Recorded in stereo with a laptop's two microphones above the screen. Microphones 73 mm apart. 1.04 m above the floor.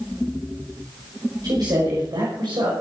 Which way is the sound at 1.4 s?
60° right (ahead or behind).